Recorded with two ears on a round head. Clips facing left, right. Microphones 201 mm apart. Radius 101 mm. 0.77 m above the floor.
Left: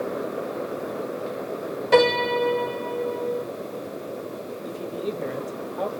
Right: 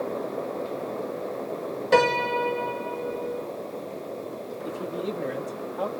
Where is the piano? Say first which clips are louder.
Left 3 dB; centre (ahead or behind), 1.6 m.